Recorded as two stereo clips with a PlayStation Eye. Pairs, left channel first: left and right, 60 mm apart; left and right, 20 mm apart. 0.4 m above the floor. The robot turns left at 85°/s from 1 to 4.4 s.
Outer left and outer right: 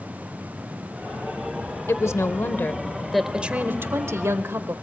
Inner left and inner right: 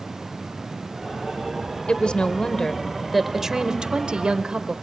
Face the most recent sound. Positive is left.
turn(degrees=-105)